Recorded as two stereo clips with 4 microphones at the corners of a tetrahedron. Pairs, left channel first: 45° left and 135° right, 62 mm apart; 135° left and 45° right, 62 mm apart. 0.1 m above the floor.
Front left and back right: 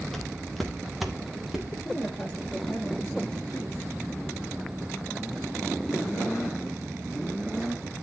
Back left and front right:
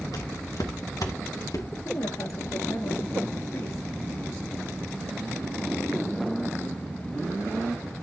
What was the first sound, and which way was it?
Footsteps, 130° left.